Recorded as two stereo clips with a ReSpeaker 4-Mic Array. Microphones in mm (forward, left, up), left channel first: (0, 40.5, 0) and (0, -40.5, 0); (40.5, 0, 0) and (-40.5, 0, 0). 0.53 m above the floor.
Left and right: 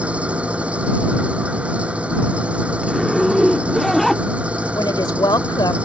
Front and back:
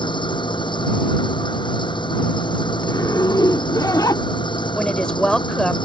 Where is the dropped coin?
No dropped coin in this recording.